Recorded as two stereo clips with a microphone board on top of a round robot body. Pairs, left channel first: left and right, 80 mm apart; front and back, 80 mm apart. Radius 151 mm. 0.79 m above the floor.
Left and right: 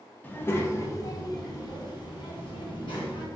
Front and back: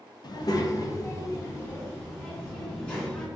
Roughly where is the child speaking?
Ahead left.